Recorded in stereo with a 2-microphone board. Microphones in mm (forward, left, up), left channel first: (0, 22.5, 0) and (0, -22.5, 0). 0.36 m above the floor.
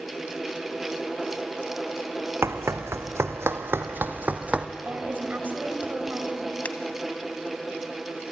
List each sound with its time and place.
2.4 s running footsteps: 70° right (ahead or behind), 1.5 m; by 4.7 s 25° right (ahead or behind), 1.2 m
4.8 s a woman speaking: 45° right (ahead or behind), 2 m
6.7 s a finger snap: 35° left (ahead or behind), 1.7 m